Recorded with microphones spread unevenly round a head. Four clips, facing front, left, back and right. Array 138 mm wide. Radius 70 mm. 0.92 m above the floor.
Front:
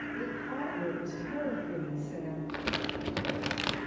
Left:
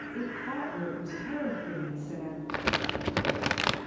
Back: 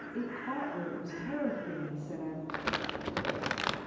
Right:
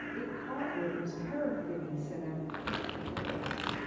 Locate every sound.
0.1 s a woman speaking: 145° left, 8 m
2.5 s crumpling: 80° left, 0.9 m